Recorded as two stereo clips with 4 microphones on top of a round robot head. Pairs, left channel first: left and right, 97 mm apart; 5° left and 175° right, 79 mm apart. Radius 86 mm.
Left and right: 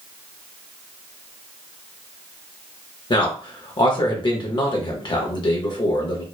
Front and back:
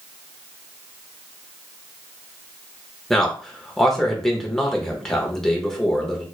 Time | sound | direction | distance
3.1 | a man speaking | 90° left | 0.7 m